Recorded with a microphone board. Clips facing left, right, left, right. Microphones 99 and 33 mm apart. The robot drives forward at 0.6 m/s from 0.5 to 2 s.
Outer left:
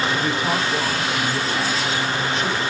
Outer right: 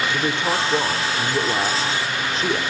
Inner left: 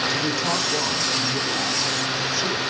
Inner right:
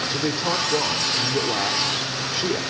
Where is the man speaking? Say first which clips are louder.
Even, inner left 1 dB; 25° right (ahead or behind), 3.5 m; by 2.6 s 35° right (ahead or behind), 2.5 m.